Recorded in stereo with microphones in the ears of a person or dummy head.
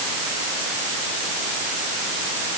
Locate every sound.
Only background noise.